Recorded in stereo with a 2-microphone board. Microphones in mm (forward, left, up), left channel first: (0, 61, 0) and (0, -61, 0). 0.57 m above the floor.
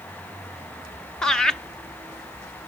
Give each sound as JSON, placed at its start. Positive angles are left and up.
{"t": 1.2, "sound": "laughter", "side_deg": 5, "distance_m": 0.6}